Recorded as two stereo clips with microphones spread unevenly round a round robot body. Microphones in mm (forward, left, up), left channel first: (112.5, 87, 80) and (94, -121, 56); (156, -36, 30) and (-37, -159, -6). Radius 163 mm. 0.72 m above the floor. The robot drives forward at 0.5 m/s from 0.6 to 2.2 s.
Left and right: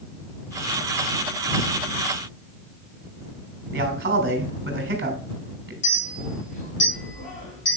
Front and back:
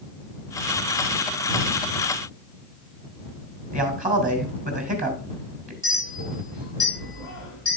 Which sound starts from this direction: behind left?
A clink, at 5.8 s.